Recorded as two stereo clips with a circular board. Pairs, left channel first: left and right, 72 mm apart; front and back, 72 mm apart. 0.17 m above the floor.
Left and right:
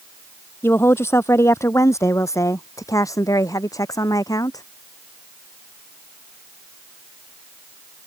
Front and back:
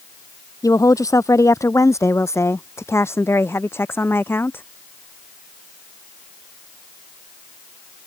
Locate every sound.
0.6 s a woman speaking: 35° left; by 4.6 s 60° left